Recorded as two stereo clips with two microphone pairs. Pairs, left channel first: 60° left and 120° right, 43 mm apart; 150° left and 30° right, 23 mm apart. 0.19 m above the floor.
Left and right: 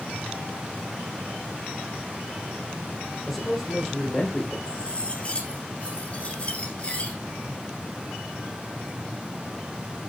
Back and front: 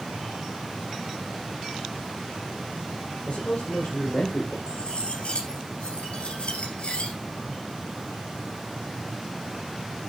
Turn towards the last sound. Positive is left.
turn(degrees=120)